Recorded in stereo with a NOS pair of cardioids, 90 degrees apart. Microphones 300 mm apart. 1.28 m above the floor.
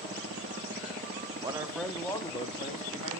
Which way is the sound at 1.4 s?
15° right.